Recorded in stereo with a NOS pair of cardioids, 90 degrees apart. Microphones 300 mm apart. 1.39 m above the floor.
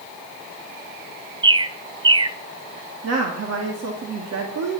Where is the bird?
15° right, 0.7 m.